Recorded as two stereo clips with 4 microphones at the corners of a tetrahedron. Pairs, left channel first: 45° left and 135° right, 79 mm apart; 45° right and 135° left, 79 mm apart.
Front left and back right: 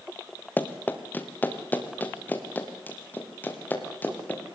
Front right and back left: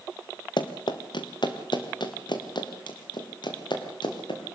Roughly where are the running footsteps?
Ahead right.